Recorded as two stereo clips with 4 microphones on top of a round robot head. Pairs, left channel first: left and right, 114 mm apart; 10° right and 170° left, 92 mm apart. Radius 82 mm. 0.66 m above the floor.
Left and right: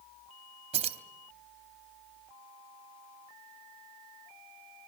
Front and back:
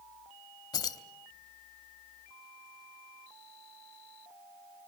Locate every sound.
0.7 s keys jangling: 55° right, 1.1 m